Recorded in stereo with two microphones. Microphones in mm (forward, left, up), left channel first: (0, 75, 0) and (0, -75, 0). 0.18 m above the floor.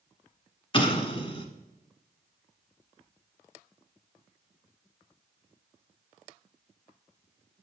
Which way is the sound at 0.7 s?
35° left (ahead or behind).